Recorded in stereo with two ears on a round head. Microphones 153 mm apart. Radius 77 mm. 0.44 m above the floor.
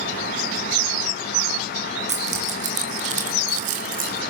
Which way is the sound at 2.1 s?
45° right (ahead or behind).